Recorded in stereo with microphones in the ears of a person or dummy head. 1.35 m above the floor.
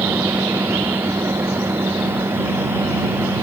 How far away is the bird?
I don't hear a bird.